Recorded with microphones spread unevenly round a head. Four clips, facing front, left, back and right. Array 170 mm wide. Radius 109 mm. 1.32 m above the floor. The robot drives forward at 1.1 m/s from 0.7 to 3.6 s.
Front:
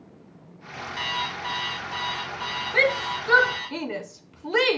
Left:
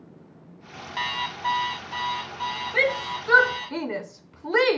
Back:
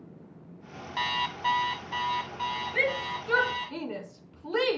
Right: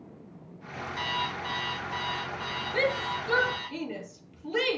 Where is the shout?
25° left, 1.8 m; by 4.8 s 50° left, 1.1 m.